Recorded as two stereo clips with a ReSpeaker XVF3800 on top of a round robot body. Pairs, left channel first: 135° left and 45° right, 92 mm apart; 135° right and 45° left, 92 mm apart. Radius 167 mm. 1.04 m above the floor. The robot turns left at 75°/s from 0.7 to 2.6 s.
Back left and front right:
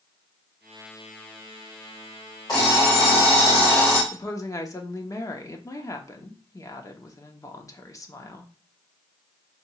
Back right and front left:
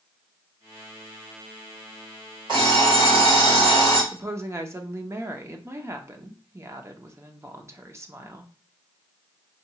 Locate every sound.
2.5 s an alarm clock: 85° left, 1.4 m; by 4.0 s 80° left, 1.4 m
4.1 s a woman speaking: 95° left, 0.9 m